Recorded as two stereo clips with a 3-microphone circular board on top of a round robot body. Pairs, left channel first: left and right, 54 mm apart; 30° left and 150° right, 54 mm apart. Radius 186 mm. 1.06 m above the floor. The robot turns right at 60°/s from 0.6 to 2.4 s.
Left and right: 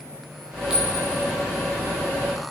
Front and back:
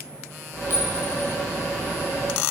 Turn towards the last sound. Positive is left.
turn(degrees=90)